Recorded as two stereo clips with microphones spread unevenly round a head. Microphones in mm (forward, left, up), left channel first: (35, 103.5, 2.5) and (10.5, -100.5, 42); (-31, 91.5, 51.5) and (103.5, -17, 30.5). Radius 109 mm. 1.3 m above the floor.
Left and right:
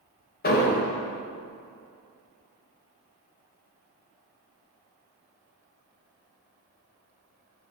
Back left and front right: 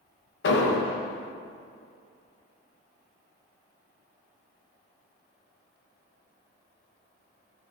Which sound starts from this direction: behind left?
An explosion, at 0.4 s.